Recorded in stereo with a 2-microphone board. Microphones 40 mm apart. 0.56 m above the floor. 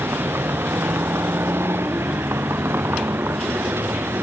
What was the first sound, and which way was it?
A vehicle, 80° right.